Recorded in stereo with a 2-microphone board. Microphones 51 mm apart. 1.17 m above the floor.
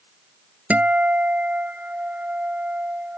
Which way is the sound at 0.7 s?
30° right (ahead or behind).